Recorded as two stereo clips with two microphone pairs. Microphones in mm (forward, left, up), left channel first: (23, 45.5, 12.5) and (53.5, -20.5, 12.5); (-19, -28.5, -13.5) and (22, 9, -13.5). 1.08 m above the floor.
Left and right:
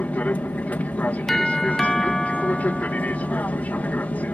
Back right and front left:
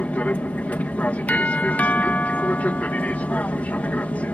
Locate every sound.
0.0 s an aircraft: 175° left
1.3 s a doorbell: 165° right